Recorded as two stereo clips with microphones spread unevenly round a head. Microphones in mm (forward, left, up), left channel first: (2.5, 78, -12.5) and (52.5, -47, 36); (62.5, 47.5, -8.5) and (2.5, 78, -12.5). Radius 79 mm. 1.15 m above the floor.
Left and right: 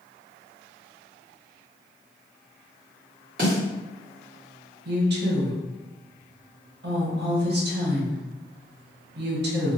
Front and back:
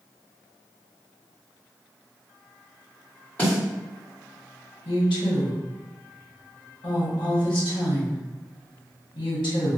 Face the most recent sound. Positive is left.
turn(degrees=-60)